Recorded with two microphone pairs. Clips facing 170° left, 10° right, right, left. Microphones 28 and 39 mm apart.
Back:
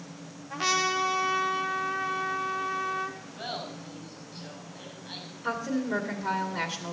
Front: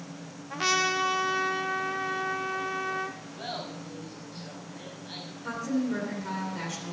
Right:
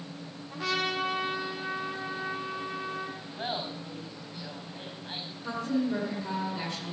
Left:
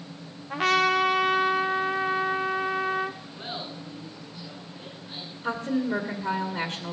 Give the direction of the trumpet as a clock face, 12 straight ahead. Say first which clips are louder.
Even, left 9 dB; 9 o'clock.